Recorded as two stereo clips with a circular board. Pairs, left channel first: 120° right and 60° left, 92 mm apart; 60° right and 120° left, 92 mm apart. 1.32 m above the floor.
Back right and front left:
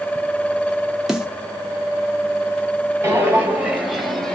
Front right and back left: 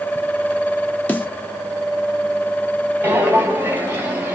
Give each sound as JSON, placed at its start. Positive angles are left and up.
{"t": 1.1, "sound": "a snare drum", "azimuth_deg": -20, "distance_m": 1.0}
{"t": 3.0, "sound": "footsteps", "azimuth_deg": 80, "distance_m": 1.4}